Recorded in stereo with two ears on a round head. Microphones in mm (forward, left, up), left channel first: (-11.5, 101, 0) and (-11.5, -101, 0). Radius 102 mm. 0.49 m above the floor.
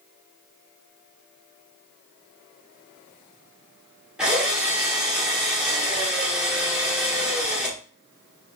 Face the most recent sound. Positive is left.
turn(degrees=-5)  # may be behind; listen again after turning